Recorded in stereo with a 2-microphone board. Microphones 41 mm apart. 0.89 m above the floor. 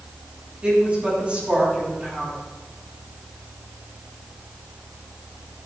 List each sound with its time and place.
0.6 s a woman speaking: 30° right (ahead or behind), 6.5 m